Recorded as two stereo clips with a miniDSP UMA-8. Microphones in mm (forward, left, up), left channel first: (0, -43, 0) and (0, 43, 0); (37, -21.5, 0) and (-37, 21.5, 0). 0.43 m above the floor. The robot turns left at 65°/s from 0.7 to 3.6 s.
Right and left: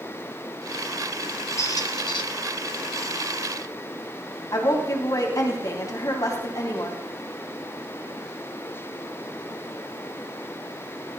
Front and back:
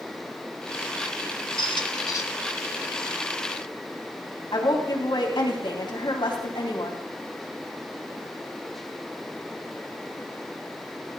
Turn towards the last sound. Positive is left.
turn(degrees=-50)